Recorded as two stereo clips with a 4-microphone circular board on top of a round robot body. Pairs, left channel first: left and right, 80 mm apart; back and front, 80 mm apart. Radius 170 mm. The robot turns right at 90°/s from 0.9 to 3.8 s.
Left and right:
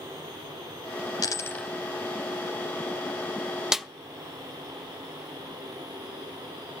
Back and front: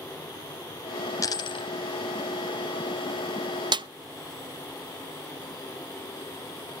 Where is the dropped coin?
130° left, 1.3 m; by 1.7 s 175° left, 1.3 m.